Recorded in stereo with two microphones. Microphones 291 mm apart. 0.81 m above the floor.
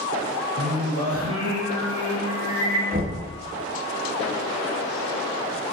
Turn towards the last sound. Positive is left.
turn(degrees=-30)  # may be behind; listen again after turning